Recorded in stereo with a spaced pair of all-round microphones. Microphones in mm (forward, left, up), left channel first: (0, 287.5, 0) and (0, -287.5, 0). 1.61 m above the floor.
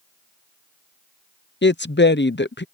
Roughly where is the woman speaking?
Centre.